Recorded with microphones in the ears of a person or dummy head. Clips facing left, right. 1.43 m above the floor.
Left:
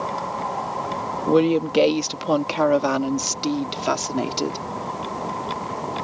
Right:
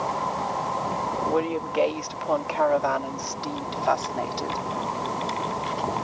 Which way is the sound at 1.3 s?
50° left (ahead or behind).